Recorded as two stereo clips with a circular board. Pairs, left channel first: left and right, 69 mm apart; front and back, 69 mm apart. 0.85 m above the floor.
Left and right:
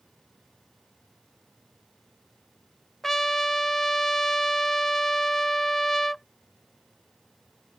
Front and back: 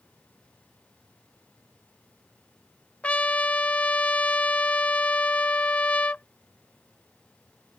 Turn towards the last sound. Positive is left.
turn(degrees=10)